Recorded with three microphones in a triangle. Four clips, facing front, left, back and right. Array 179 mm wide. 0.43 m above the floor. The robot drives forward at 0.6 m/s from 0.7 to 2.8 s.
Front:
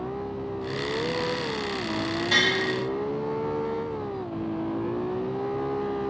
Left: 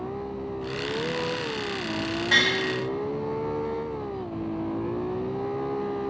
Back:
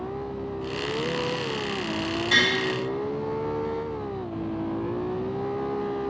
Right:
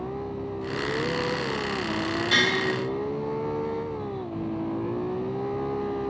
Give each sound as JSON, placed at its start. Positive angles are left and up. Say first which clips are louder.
{"t": 2.3, "sound": "tapping", "louder": "left 1 dB, back 1 dB", "azimuth_deg": 85, "distance_m": 2.0}